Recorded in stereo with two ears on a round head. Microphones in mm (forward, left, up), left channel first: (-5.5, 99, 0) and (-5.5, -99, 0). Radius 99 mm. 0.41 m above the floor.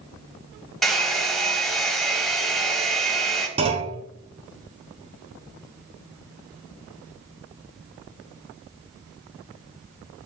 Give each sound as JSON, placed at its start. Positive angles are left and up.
{"t": 0.8, "sound": "a hair dryer", "side_deg": 0, "distance_m": 1.1}
{"t": 3.6, "sound": "a clunk", "side_deg": -25, "distance_m": 1.1}